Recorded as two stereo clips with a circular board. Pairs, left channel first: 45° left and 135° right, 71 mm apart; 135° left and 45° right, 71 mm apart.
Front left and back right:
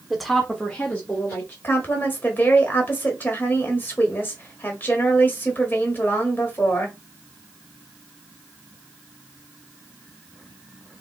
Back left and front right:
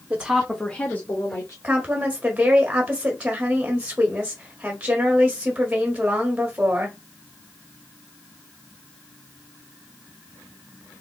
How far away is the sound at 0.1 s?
About 1.0 m.